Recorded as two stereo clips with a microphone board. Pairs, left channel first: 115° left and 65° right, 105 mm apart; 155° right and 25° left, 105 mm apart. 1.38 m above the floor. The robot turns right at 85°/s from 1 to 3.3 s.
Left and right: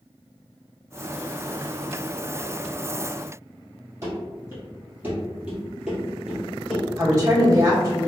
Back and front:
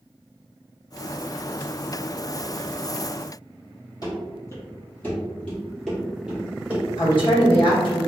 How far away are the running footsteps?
About 1.8 m.